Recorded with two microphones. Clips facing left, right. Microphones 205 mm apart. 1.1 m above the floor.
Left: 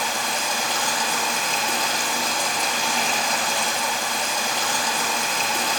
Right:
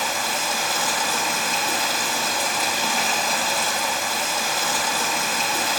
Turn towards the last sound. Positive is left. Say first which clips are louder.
# even
turn(degrees=-5)  # may be behind; listen again after turning